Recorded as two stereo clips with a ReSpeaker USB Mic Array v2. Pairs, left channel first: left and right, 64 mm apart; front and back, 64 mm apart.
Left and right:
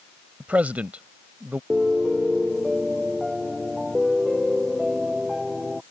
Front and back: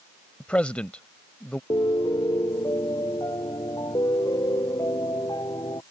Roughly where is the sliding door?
I don't hear a sliding door.